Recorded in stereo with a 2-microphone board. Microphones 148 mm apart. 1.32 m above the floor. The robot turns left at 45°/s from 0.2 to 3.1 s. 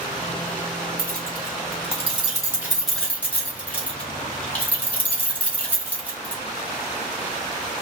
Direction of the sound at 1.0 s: 85° right.